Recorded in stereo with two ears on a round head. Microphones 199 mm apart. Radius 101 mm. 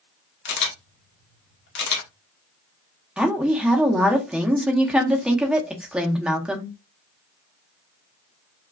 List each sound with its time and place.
0.5 s a camera shutter: 55° left (ahead or behind), 1.1 m
3.2 s a woman speaking: 5° right (ahead or behind), 0.8 m